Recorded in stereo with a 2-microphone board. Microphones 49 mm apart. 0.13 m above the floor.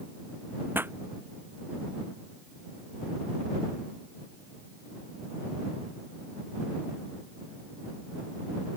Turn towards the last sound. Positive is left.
turn(degrees=-50)  # may be behind; listen again after turning